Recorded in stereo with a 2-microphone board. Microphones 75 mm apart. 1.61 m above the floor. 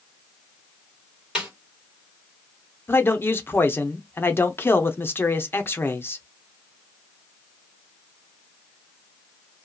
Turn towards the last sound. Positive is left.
turn(degrees=30)  # may be behind; listen again after turning